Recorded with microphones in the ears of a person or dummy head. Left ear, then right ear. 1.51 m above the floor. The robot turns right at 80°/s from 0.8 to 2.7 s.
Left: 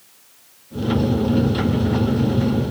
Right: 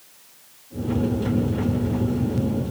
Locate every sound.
Only background noise.